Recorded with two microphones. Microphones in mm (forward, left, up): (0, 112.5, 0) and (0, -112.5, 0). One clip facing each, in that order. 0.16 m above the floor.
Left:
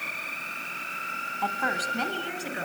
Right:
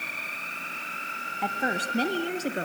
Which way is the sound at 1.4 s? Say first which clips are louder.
Right 2 dB; 15° right (ahead or behind).